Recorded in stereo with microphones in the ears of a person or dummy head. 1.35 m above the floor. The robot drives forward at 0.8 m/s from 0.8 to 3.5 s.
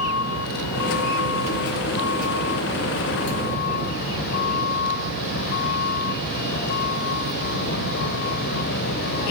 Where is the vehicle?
85° left; by 9.3 s 60° left (ahead or behind).